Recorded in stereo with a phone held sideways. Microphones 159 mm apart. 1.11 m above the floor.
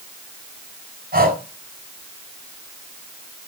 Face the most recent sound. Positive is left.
turn(degrees=-70)  # may be behind; listen again after turning